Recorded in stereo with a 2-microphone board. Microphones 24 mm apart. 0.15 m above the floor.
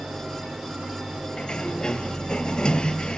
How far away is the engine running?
About 6 m.